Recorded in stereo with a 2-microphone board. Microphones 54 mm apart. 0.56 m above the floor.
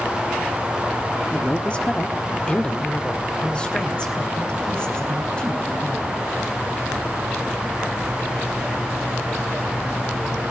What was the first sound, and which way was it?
A man speaking, 20° left (ahead or behind).